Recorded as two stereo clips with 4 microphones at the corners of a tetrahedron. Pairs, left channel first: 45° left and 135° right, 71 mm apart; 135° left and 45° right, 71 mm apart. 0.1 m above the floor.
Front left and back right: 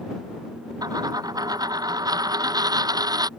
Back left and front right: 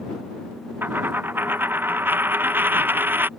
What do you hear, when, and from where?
0.8 s a dropped coin: 105° right